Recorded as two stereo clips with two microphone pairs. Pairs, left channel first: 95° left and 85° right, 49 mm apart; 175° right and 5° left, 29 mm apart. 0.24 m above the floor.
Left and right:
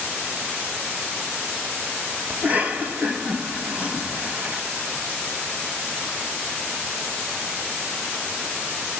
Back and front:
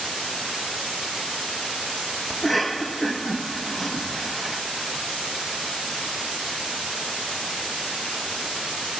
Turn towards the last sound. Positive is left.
turn(degrees=-70)